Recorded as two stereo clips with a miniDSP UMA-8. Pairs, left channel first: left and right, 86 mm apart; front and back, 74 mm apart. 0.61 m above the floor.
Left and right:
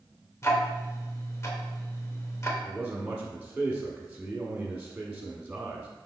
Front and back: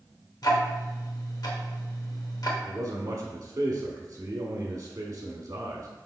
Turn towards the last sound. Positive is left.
turn(degrees=-165)